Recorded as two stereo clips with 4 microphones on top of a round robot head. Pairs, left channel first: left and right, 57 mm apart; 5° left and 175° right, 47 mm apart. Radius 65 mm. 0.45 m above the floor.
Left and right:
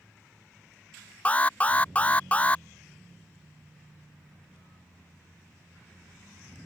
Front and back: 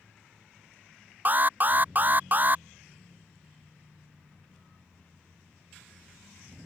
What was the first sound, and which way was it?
An alarm, 150° left.